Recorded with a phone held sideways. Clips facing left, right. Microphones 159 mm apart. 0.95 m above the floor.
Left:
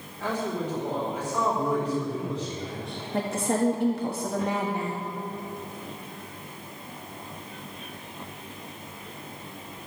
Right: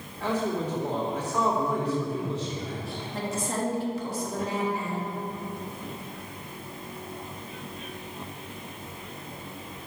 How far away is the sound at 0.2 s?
About 2.5 m.